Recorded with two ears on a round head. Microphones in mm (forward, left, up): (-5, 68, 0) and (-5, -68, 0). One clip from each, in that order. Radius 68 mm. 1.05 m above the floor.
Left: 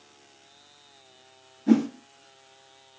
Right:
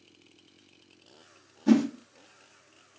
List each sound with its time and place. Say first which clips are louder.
1.7 s a whoosh: left 1 dB; 70° right (ahead or behind), 0.8 m